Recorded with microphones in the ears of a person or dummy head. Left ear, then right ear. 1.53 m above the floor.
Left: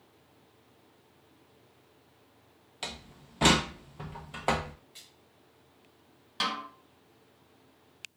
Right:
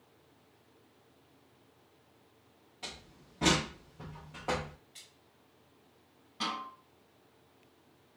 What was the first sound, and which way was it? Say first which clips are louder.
A door slam: left 5 dB; 30° left (ahead or behind).